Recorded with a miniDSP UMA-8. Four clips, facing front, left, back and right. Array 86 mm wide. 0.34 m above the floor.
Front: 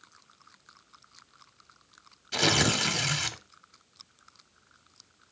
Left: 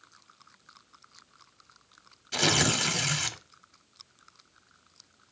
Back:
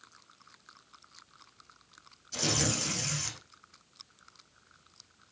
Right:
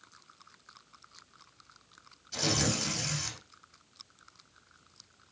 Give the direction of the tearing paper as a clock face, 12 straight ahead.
11 o'clock.